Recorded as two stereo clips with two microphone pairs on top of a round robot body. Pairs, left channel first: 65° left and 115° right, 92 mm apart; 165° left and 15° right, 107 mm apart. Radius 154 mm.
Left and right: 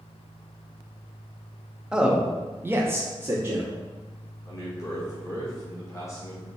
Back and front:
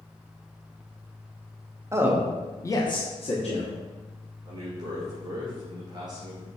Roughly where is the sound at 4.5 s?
Ahead.